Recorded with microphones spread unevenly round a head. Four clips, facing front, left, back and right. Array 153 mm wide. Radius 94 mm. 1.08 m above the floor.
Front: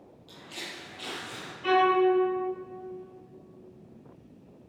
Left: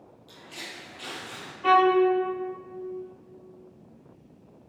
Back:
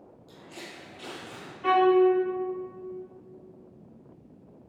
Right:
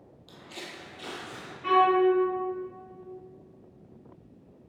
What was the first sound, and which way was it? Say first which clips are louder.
Footsteps: even, front 1 dB; 155° right.